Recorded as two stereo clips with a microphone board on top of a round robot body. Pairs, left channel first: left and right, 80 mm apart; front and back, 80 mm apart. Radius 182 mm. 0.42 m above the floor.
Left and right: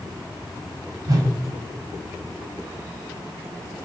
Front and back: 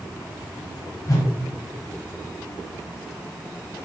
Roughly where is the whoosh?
Ahead right.